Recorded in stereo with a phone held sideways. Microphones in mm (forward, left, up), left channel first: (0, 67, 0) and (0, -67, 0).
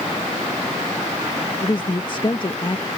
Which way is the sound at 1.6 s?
35° left (ahead or behind).